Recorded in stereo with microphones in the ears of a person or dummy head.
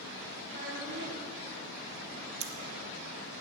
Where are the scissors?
30° right (ahead or behind), 0.7 m.